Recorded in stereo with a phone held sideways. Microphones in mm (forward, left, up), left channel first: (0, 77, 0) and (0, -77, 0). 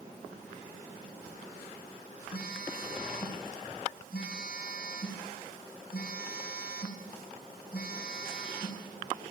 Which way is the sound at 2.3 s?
80° left.